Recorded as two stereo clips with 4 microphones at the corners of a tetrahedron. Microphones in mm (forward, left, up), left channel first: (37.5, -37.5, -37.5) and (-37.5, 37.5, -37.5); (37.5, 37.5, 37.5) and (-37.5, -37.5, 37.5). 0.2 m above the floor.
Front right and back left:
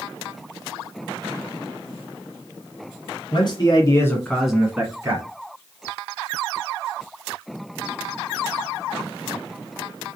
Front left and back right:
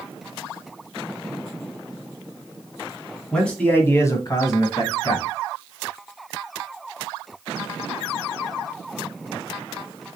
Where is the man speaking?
40° right, 1.8 m; by 5.2 s 80° left, 1.9 m.